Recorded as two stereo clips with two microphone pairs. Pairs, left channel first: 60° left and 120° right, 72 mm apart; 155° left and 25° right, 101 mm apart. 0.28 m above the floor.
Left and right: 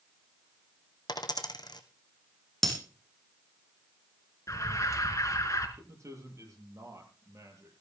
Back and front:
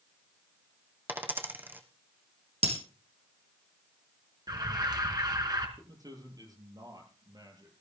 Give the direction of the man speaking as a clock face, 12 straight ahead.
3 o'clock.